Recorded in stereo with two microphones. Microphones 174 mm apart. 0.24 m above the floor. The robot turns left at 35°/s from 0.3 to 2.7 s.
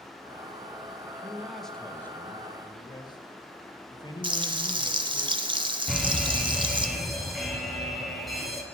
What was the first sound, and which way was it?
A man speaking, 170° right.